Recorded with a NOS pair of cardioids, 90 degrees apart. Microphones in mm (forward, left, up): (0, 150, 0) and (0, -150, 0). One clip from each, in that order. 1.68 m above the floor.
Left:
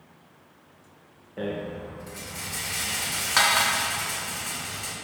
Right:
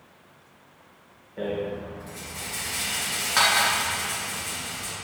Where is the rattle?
20° left, 1.8 m.